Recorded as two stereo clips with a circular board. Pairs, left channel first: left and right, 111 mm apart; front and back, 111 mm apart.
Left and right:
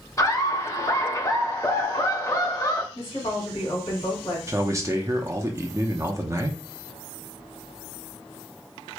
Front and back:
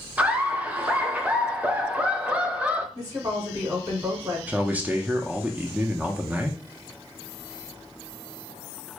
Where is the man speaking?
120° right, 0.6 m.